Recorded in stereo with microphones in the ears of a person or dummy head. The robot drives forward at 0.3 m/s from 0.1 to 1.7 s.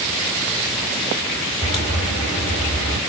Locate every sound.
1.6 s a crack: centre (ahead or behind), 1.8 m